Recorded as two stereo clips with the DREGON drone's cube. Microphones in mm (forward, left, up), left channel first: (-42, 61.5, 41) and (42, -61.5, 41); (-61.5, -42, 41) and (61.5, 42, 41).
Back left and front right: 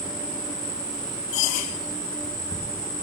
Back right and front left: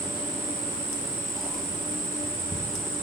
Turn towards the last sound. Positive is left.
turn(degrees=85)